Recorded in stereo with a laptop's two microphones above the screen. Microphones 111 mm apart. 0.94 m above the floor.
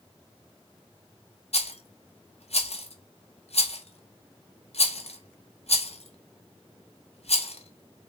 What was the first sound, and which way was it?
A rattle, 70° left (ahead or behind).